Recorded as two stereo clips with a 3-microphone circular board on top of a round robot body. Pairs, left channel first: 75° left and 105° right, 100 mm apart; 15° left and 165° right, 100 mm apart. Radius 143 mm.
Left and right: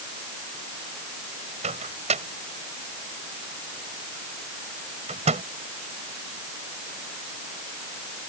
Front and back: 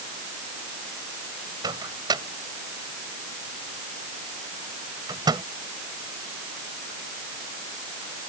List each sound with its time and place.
1.6 s a microwave: 110° right